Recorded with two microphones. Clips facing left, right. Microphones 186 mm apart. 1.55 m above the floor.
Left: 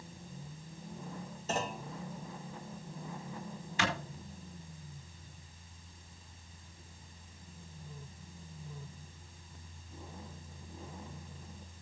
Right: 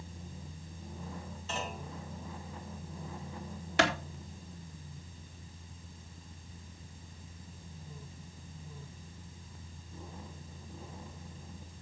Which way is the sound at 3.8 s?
75° right (ahead or behind).